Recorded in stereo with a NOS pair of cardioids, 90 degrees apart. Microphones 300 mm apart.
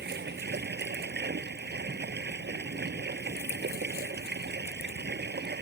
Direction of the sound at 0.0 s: 35° right.